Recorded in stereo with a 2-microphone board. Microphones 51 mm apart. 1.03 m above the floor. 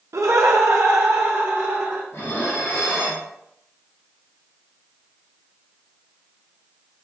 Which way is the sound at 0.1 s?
80° right.